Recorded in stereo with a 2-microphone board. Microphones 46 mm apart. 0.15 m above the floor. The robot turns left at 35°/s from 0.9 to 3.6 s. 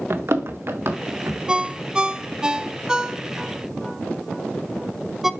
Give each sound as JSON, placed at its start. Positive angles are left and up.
{"t": 0.1, "sound": "running footsteps", "side_deg": -60, "distance_m": 1.3}
{"t": 1.5, "sound": "a ringtone", "side_deg": -20, "distance_m": 0.5}